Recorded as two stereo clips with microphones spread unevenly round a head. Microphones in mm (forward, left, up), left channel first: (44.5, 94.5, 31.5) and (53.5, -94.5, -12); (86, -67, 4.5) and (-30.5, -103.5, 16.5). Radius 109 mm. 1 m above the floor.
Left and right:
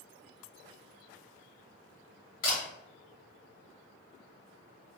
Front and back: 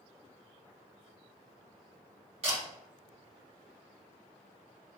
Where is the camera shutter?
150° left, 1.4 m.